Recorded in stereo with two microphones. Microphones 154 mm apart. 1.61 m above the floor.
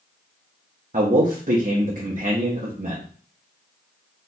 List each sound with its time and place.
0.9 s a man speaking: 55° right (ahead or behind), 0.7 m